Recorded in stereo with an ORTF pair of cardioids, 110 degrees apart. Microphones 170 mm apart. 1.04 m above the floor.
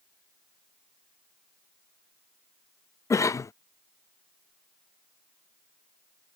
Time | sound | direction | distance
3.1 | a cough | 20° left | ?